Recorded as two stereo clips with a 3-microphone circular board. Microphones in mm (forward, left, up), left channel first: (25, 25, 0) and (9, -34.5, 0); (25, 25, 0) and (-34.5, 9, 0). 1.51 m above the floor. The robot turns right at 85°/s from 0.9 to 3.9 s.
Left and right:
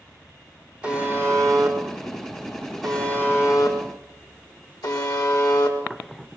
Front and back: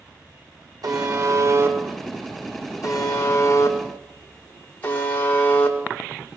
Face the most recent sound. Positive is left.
turn(degrees=80)